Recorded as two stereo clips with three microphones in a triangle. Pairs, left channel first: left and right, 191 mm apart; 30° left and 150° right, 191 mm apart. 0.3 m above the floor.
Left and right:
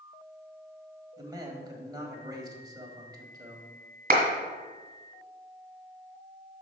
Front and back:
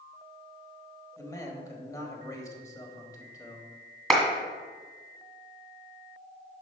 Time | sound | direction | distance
1.2 | a man speaking | 35° right | 1.3 m
4.1 | a clap | 60° right | 1.8 m